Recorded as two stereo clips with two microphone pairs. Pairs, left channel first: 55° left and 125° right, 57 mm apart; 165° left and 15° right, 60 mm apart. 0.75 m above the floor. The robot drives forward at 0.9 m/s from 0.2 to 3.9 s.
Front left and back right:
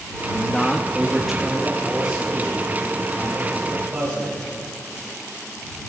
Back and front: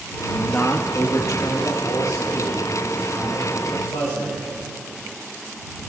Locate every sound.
0.3 s a man speaking: 90° left, 0.6 m; by 4.5 s 170° left, 3.5 m